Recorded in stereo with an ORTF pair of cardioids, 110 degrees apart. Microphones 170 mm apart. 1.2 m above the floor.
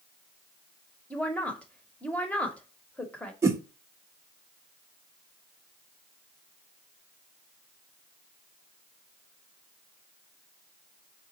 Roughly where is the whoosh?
Ahead.